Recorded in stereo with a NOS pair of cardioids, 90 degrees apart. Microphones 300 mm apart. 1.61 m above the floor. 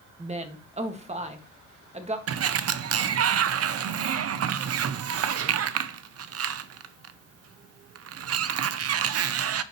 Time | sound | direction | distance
0.2 | a woman speaking | 20° right | 1.7 m
2.3 | a sliding door | 50° right | 0.7 m